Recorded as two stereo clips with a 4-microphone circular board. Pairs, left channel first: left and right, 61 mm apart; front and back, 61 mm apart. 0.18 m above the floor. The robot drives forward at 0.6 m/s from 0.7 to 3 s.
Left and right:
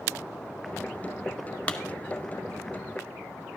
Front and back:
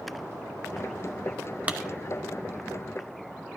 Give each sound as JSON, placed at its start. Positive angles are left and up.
{"t": 1.7, "sound": "a clap", "azimuth_deg": 140, "distance_m": 0.9}